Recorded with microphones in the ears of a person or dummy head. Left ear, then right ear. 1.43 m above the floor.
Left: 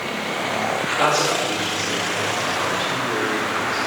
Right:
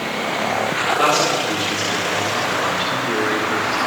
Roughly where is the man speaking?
Centre.